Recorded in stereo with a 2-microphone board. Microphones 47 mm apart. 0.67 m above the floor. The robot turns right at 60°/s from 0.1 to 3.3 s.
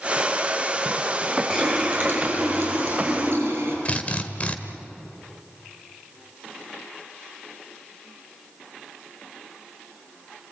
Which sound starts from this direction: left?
A drill, at 3.9 s.